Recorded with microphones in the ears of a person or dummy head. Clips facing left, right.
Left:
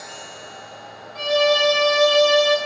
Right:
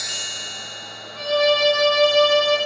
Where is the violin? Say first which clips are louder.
Even; centre (ahead or behind), 2 m.